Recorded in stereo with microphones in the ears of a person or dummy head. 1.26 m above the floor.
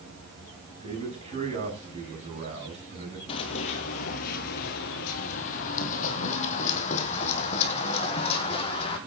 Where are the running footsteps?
30° left (ahead or behind), 1.7 m; by 9.0 s 35° left (ahead or behind), 4 m.